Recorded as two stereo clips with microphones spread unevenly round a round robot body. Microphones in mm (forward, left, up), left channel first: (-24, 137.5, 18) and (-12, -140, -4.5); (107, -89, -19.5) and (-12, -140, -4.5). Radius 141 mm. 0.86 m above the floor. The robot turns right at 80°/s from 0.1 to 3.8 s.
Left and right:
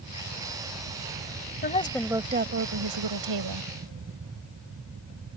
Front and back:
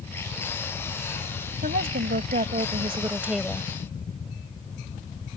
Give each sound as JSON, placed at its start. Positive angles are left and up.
{"t": 1.6, "sound": "a woman speaking", "azimuth_deg": 150}